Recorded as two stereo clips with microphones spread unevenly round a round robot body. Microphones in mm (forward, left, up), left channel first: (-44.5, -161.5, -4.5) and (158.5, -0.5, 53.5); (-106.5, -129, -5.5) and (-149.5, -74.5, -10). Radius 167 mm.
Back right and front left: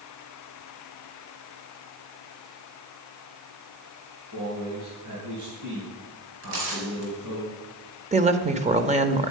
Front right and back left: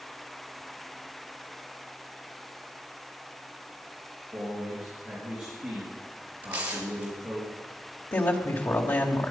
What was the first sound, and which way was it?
A man speaking, 70° left.